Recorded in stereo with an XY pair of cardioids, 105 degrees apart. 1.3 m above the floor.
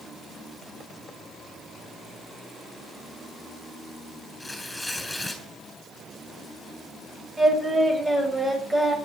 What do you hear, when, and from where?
4.4 s tearing paper: 10° left, 6.5 m
7.4 s singing: 20° right, 8 m